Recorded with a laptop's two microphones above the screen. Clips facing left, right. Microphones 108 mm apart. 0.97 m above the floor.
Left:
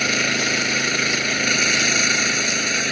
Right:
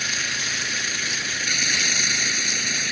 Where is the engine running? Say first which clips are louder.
Left 9 dB; 65° left (ahead or behind).